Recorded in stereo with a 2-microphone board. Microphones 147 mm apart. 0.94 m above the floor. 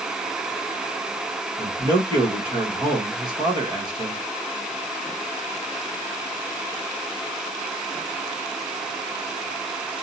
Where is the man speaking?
30° right (ahead or behind), 1.2 m.